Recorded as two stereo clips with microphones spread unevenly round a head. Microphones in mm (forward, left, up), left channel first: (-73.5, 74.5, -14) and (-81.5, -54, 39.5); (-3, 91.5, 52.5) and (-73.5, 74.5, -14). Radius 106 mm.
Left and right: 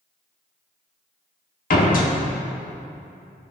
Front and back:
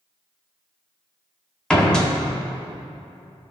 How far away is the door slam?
About 1.7 m.